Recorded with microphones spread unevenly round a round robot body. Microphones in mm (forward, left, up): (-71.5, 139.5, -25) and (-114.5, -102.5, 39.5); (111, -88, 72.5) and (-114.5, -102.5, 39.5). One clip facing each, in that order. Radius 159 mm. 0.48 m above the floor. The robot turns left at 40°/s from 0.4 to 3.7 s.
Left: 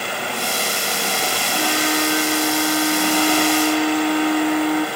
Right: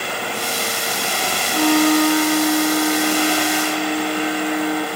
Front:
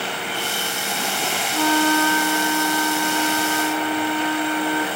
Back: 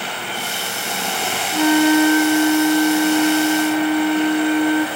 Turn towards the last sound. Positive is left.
turn(degrees=155)